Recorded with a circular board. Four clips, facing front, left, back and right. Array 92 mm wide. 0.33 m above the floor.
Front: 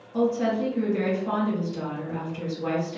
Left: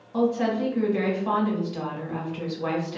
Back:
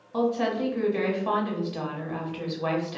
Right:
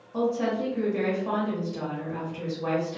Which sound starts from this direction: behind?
A woman speaking, at 0.1 s.